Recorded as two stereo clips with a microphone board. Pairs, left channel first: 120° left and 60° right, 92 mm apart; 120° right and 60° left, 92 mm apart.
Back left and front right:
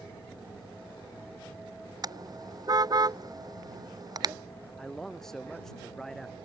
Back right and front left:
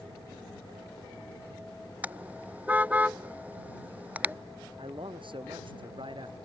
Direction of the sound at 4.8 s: 35° left.